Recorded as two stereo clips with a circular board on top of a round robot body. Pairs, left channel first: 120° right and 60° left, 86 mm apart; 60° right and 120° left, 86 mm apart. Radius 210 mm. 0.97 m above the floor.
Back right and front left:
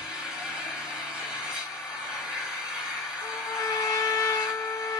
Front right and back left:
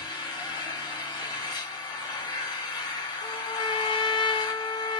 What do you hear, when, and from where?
0.0 s an engine running: 20° right, 1.7 m
3.2 s a trumpet: 65° right, 1.3 m